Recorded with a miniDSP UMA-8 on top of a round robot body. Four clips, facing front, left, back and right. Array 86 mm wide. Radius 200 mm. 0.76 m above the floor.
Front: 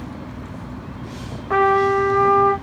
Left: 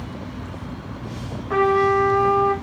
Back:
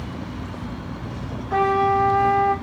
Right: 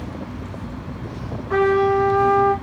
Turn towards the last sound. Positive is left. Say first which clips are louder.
# right 1 dB, front 3 dB
turn(degrees=10)